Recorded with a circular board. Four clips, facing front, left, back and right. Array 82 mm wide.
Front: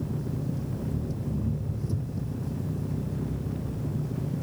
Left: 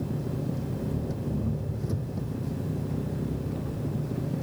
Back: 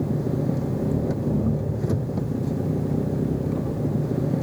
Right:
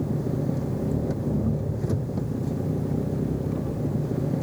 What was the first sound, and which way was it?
An engine running, 155° right.